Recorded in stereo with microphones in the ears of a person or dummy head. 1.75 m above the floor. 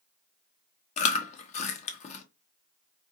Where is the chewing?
35° left (ahead or behind), 1.0 m.